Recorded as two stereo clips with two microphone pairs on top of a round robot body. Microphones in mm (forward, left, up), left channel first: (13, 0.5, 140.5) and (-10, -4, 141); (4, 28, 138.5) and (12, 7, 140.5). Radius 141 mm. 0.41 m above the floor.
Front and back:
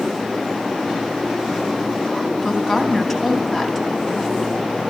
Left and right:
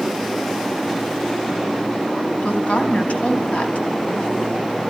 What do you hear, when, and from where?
2.4 s a woman speaking: 100° left, 3.5 m